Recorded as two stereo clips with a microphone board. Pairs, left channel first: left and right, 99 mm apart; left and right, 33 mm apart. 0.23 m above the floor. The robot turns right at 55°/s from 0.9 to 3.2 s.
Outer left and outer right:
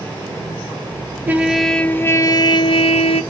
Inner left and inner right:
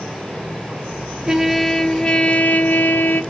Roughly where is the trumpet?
Ahead.